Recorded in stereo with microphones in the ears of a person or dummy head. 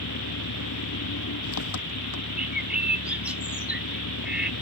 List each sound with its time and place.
0.0 s an engine running: 85° left
2.4 s a bird: 10° right (ahead or behind)